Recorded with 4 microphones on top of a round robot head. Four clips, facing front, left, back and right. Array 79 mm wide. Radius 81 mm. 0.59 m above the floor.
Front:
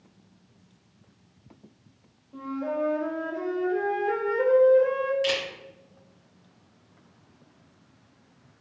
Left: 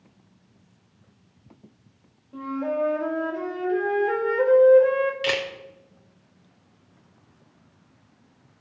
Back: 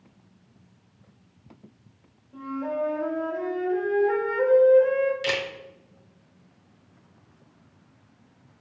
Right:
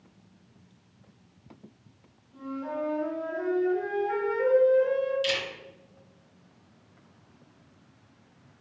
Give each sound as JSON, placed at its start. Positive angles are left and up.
{"t": 2.3, "sound": "a flute", "azimuth_deg": 80, "distance_m": 3.0}
{"t": 5.2, "sound": "a camera shutter", "azimuth_deg": 110, "distance_m": 1.7}